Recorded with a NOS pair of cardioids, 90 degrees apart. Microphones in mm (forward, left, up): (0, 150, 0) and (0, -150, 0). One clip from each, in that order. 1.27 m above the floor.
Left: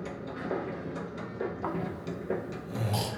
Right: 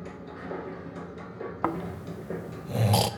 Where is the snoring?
45° right, 0.6 m.